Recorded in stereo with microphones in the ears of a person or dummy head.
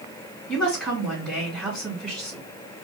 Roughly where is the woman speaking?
Centre.